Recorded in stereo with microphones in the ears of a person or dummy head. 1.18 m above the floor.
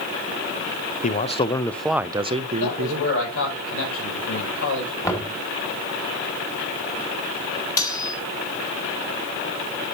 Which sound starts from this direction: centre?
Knocking, at 5.0 s.